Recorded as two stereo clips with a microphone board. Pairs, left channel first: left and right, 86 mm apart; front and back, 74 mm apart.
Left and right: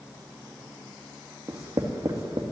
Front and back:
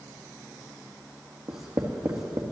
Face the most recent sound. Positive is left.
turn(degrees=-140)